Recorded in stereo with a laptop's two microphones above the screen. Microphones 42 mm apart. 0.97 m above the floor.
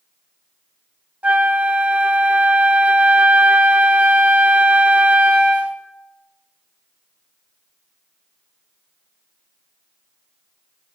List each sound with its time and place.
1.2 s a flute: 30° right (ahead or behind), 0.6 m